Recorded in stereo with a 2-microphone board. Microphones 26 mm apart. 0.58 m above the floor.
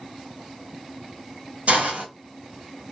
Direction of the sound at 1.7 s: 65° right (ahead or behind).